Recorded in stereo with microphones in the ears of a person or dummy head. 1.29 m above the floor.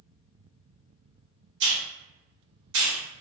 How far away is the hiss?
About 1.0 m.